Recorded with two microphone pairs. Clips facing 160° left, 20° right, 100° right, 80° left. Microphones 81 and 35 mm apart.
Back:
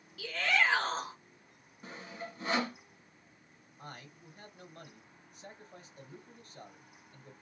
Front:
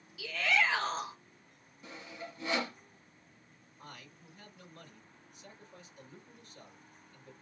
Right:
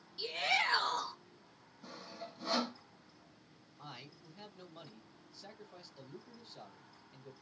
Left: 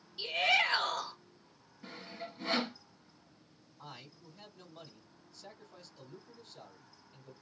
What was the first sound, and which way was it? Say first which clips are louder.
A shout: even, left 4 dB; 165° left.